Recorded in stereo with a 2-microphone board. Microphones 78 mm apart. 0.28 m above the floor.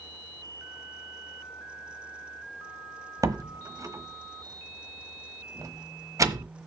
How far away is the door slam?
About 1.0 m.